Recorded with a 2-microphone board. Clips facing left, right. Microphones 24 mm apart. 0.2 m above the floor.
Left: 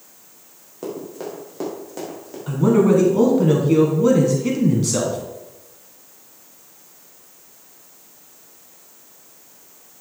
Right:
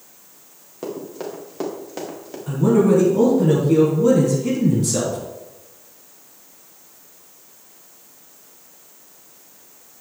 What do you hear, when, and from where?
0.8 s running footsteps: 10° right (ahead or behind), 4 m; by 2.4 s 25° right (ahead or behind), 4 m
2.5 s a man speaking: 35° left (ahead or behind), 2 m